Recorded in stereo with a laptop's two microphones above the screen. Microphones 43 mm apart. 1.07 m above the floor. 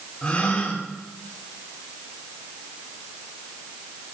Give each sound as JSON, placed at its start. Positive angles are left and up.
{"t": 0.2, "sound": "a gasp", "side_deg": 25, "distance_m": 2.5}